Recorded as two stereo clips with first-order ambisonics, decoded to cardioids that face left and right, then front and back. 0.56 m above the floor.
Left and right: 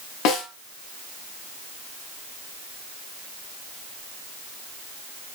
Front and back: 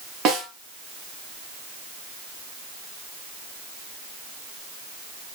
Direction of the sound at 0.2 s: 125° left.